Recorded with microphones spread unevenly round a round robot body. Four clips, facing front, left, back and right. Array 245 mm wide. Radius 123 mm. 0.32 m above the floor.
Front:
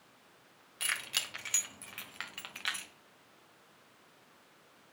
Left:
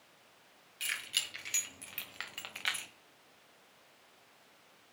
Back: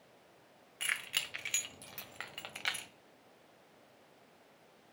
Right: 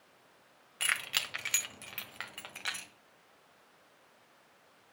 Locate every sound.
0.8 s keys jangling: 85° right, 1.4 m; by 2.9 s straight behind, 1.5 m